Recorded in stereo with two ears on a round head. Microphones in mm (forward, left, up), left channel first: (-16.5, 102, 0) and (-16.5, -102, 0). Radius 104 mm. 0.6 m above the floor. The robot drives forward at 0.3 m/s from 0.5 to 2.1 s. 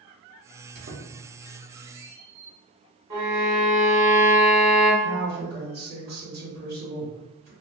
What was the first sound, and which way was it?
A squeak, 45° right (ahead or behind).